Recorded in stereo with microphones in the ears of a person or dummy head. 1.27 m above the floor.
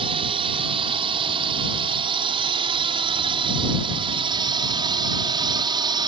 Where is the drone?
30° right (ahead or behind); by 6.1 s 25° right (ahead or behind).